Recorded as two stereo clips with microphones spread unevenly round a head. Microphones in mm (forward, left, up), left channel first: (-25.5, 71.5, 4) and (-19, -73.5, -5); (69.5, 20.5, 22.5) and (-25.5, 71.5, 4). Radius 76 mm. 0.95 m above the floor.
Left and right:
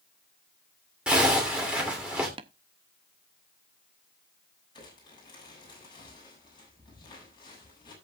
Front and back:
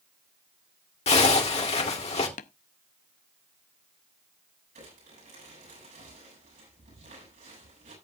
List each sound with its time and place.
1.1 s a zipper: 5° right, 3 m
2.4 s tapping: 25° right, 0.5 m
4.8 s crumpling: 155° left, 7.5 m